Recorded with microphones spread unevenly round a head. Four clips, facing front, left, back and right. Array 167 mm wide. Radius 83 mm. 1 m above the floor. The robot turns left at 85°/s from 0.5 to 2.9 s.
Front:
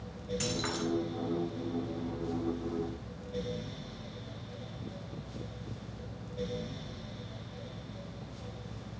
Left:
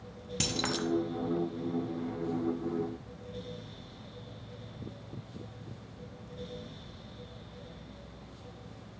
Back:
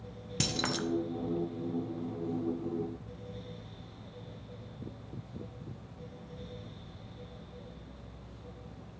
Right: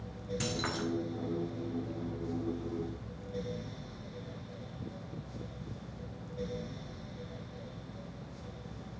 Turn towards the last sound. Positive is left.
turn(degrees=-50)